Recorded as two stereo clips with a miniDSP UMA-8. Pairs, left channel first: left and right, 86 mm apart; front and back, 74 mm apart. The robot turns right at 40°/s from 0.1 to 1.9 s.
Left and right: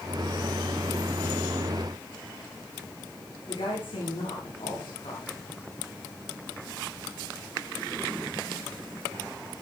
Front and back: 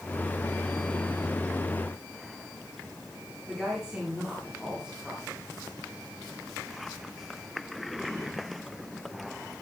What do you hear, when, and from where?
3.5 s a woman speaking: 100° left, 9.5 m